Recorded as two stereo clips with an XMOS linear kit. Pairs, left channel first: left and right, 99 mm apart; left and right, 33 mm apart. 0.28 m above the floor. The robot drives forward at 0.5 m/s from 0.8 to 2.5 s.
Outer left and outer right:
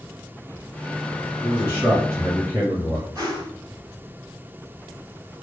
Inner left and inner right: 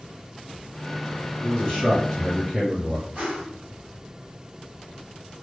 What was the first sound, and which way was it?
A man speaking, 20° left (ahead or behind).